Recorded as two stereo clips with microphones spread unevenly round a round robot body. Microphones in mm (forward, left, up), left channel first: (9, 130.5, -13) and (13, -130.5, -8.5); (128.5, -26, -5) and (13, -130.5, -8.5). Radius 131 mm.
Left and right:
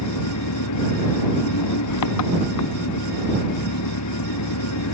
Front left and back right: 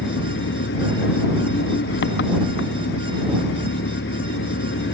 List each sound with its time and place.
0.0 s an engine running: 65° left